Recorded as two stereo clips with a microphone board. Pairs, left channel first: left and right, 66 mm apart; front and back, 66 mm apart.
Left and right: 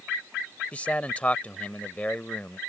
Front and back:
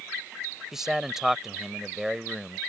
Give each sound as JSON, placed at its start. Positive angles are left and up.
{"t": 0.7, "sound": "a man speaking", "azimuth_deg": 110}